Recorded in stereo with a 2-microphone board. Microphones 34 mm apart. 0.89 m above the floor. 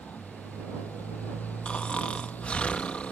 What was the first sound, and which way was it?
A motorcycle, 65° left (ahead or behind).